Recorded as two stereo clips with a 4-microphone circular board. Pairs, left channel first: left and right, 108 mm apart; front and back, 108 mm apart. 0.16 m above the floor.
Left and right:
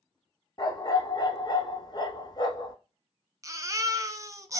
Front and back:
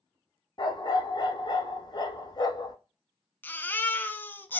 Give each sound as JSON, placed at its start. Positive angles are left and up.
{"t": 0.6, "sound": "a dog barking", "azimuth_deg": 45, "distance_m": 0.8}
{"t": 3.4, "sound": "a baby crying", "azimuth_deg": -60, "distance_m": 0.5}